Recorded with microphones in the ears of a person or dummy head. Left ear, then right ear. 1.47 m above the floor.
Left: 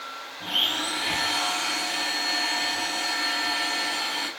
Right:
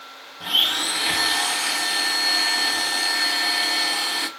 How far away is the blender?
About 0.7 m.